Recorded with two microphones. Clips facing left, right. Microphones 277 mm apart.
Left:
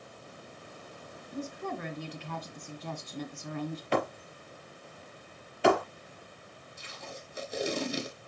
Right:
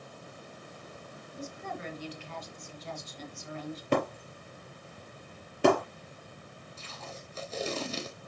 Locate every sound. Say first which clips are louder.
1.3 s a woman speaking: left 5 dB; 65° left (ahead or behind), 2 m
3.9 s breaking glass: right 3 dB; 50° right (ahead or behind), 4 m
6.8 s tape being pulled: left 1 dB; 15° left (ahead or behind), 1.8 m